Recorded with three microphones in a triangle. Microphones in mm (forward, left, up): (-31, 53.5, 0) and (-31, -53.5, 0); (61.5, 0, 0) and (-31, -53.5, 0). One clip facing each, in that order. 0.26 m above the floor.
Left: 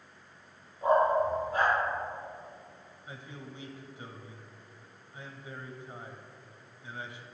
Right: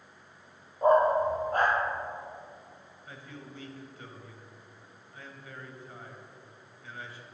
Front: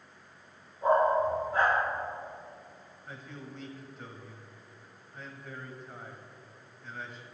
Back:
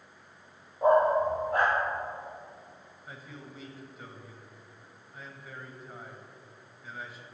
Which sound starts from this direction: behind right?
A dog barking, at 0.8 s.